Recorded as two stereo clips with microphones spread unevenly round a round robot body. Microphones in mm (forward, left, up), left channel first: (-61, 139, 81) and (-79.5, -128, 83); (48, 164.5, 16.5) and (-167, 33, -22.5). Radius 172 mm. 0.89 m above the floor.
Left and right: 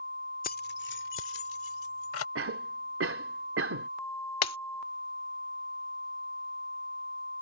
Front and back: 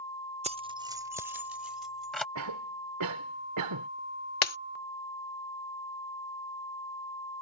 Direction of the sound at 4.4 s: 45° left.